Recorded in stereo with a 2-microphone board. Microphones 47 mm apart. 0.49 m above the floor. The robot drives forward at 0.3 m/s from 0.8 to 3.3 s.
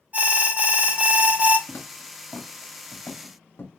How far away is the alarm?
About 1.1 m.